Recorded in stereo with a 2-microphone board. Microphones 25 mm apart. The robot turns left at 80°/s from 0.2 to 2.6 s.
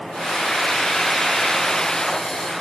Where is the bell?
I don't hear a bell.